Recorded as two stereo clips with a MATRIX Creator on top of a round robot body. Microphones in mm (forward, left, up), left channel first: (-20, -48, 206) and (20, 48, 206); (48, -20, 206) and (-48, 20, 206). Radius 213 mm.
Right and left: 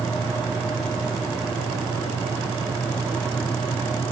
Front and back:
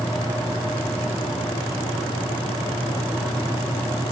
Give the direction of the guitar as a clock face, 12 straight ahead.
No guitar in this recording.